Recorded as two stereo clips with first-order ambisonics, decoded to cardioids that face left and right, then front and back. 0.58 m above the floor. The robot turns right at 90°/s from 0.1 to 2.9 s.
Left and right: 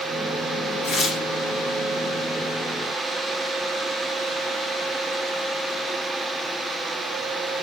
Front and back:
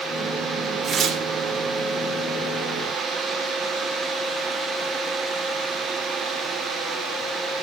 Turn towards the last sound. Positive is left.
turn(degrees=-50)